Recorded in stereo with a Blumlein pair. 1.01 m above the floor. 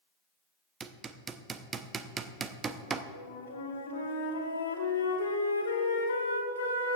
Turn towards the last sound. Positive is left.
turn(degrees=60)